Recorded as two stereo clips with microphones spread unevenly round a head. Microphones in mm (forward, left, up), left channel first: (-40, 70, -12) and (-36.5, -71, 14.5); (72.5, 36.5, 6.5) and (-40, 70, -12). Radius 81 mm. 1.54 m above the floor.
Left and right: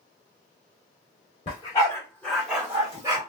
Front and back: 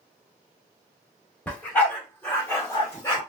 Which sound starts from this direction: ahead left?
A dog barking, at 1.5 s.